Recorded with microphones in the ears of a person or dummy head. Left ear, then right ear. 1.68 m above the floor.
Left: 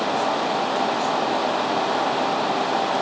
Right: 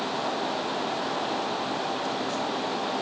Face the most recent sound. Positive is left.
No sound to turn to.